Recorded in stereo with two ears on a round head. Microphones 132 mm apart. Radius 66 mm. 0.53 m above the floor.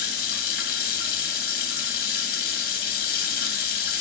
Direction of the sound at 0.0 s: 65° left (ahead or behind).